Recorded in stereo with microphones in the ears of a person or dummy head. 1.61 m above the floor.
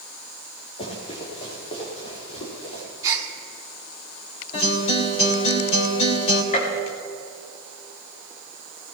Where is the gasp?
20° right (ahead or behind), 2.5 m.